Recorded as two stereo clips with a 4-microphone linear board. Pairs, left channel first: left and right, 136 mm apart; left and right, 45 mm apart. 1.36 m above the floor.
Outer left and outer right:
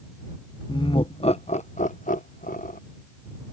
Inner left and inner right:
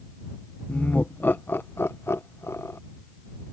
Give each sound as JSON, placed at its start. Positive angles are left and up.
{"t": 0.7, "sound": "laughter", "side_deg": 35}